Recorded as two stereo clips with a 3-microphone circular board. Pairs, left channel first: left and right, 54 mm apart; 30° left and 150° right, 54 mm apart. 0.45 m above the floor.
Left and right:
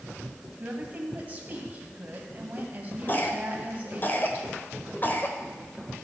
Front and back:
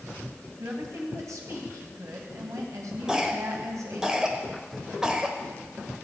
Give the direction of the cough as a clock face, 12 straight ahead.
8 o'clock.